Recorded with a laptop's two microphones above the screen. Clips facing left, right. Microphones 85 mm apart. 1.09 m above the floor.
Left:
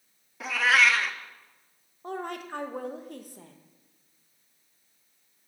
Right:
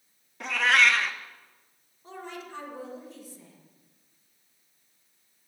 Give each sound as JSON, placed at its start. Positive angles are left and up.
{"t": 0.4, "sound": "a cat meowing", "side_deg": 5, "distance_m": 0.6}
{"t": 2.0, "sound": "a woman speaking", "side_deg": 55, "distance_m": 0.8}